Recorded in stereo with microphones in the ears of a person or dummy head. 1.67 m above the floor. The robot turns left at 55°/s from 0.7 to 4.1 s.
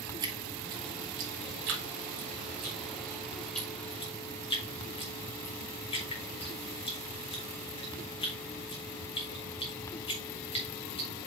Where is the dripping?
20° right (ahead or behind), 1.5 m; by 11.1 s 25° left (ahead or behind), 1.5 m.